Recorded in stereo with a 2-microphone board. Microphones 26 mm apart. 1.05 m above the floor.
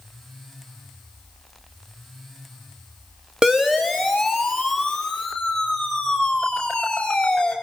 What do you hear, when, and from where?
3.4 s a siren: 20° right (ahead or behind), 3 m; by 7.5 s 30° left (ahead or behind), 7.5 m